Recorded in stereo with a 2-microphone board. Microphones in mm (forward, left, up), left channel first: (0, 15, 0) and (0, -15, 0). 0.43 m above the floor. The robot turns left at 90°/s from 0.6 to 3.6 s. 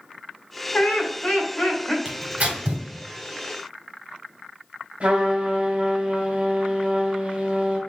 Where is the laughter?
130° left, 1.9 m; by 1.9 s 25° left, 1.9 m.